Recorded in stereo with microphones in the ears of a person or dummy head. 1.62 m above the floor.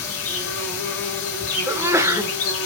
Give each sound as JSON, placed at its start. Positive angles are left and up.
{"t": 0.0, "sound": "an insect", "side_deg": 75, "distance_m": 5.0}
{"t": 1.7, "sound": "a sneeze", "side_deg": -10, "distance_m": 1.0}